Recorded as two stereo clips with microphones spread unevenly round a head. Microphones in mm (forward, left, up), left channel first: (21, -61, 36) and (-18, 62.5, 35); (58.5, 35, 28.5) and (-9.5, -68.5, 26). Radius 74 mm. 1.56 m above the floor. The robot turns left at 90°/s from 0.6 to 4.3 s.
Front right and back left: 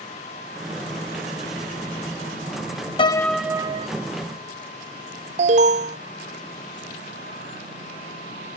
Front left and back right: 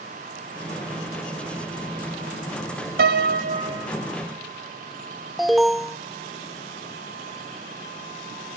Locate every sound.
3.0 s a piano: 130° right; by 3.9 s 150° left
5.4 s an alarm: 145° left